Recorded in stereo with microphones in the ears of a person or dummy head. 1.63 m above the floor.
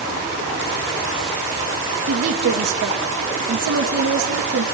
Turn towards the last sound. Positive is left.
turn(degrees=-80)